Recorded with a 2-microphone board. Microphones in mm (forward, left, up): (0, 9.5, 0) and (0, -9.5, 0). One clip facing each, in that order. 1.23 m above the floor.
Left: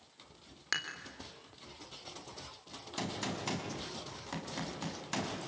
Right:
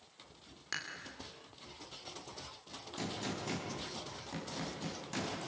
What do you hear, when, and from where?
0.7 s dishes clattering: 30° left (ahead or behind), 3 m
3.0 s a gunshot: 35° left (ahead or behind), 5 m